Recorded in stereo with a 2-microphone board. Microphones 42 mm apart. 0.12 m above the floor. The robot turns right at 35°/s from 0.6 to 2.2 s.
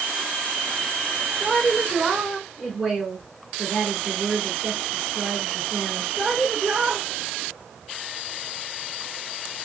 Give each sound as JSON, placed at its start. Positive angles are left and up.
{"t": 1.4, "sound": "a woman speaking", "side_deg": -15, "distance_m": 1.5}